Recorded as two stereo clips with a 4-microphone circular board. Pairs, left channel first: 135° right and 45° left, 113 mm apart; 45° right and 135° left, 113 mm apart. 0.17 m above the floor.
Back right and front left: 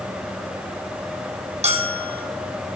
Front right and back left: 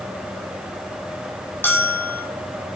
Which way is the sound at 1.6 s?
25° left.